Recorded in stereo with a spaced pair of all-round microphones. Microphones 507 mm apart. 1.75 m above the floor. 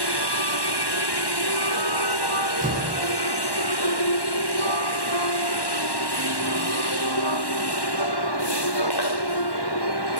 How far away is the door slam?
About 9 m.